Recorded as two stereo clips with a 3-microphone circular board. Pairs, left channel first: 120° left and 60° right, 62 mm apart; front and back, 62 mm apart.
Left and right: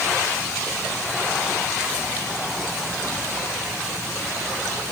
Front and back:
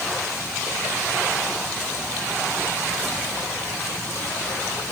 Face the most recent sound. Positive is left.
No sound to turn to.